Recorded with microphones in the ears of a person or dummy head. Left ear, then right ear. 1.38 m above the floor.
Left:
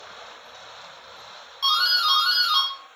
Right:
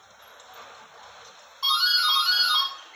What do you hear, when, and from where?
1.6 s a doorbell: 45° left (ahead or behind), 1.0 m